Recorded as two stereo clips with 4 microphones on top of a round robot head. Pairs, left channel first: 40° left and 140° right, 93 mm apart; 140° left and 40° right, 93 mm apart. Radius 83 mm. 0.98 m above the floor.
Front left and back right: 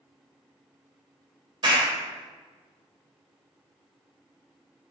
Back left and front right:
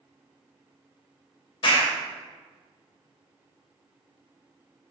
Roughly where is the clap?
Behind.